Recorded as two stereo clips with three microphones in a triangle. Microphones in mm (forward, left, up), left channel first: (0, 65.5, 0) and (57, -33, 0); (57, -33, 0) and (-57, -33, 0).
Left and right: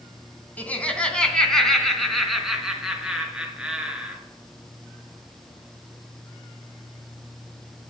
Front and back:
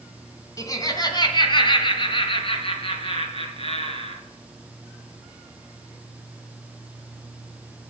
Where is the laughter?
50° left, 1.9 m; by 4.2 s 20° left, 4 m.